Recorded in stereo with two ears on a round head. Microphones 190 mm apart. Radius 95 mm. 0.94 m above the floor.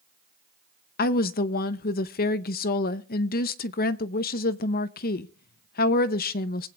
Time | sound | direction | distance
1.0 | a woman speaking | 45° left (ahead or behind) | 0.6 m